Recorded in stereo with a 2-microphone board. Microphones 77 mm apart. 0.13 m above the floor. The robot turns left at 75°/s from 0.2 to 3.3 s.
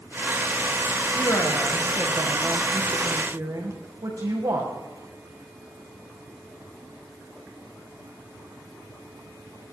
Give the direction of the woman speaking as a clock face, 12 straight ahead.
11 o'clock.